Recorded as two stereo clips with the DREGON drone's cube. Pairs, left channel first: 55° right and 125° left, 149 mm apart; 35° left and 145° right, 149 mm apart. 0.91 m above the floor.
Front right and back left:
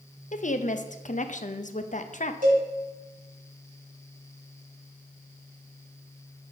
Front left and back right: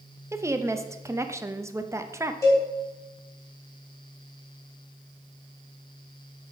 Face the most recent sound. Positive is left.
turn(degrees=105)